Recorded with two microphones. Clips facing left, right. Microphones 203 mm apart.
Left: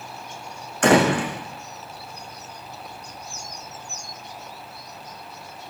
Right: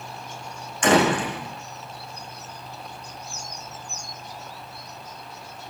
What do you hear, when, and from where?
0.8 s a door slam: 60° left (ahead or behind), 8.5 m